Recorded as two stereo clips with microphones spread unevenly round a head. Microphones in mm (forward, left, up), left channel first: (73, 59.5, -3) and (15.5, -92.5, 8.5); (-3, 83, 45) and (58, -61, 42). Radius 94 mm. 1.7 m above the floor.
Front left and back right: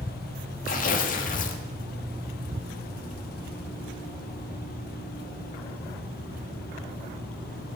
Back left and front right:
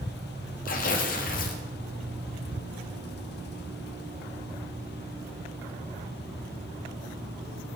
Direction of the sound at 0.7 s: 100° left.